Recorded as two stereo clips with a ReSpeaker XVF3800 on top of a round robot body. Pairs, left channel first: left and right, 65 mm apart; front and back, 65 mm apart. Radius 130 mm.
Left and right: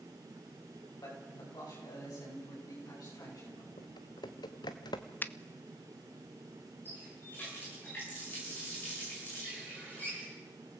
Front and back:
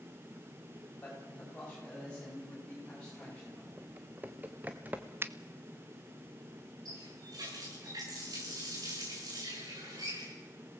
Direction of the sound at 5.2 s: 140° left.